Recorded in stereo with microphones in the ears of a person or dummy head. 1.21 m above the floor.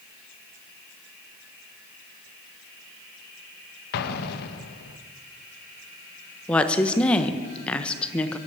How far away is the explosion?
About 0.9 m.